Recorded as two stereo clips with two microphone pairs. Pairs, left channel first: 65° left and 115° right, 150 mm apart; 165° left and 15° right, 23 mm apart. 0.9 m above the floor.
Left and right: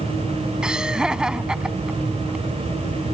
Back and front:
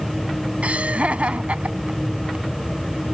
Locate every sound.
0.6 s laughter: 30° right